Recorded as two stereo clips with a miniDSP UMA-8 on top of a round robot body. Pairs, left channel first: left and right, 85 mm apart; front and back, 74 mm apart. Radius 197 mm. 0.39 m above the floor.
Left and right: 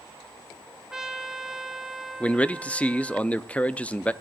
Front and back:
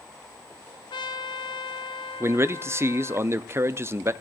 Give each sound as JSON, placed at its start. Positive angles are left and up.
{"t": 0.9, "sound": "a trumpet", "azimuth_deg": -10, "distance_m": 0.7}
{"t": 2.2, "sound": "a man speaking", "azimuth_deg": 155, "distance_m": 0.9}